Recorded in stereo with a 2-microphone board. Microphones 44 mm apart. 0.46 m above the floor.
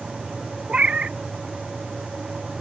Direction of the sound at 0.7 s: 30° right (ahead or behind).